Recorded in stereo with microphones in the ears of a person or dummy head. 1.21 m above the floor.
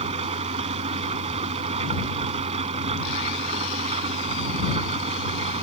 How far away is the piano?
No piano in this recording.